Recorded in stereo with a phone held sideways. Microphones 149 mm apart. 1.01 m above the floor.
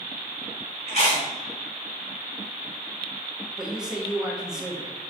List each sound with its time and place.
0.9 s chewing: 50° left (ahead or behind), 1.8 m
3.6 s a man speaking: 5° right (ahead or behind), 0.9 m